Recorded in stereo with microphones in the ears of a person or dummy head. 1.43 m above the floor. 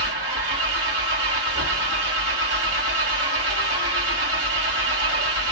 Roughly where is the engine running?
Right.